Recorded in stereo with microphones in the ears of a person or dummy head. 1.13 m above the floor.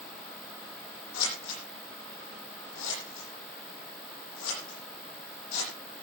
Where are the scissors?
85° left, 10 m.